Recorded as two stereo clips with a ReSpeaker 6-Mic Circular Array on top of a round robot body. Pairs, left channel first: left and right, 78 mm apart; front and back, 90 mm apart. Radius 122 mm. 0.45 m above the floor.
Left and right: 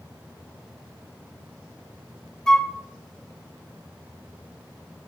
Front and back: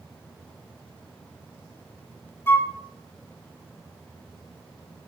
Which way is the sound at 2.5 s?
15° left.